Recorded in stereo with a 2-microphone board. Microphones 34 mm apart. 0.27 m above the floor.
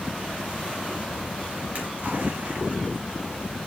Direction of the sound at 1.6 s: 50° right (ahead or behind).